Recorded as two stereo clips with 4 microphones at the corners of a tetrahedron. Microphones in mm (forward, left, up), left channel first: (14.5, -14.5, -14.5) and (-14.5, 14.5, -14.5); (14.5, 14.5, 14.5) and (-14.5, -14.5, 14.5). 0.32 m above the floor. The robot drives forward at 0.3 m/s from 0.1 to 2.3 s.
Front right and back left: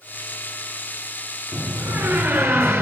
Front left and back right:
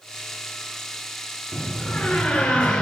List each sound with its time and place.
1.5 s a door slam: 120° left, 4 m